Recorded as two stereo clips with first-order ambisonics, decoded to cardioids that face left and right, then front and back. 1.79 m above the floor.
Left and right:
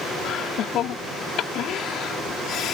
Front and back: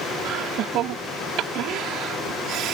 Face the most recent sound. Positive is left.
turn(degrees=140)